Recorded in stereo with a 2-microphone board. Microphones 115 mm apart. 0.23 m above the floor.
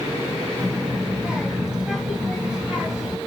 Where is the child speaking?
10° right (ahead or behind), 1.0 m.